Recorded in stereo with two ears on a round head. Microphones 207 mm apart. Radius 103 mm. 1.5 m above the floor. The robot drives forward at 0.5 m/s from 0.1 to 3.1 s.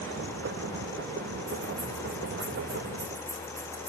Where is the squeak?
I don't hear a squeak.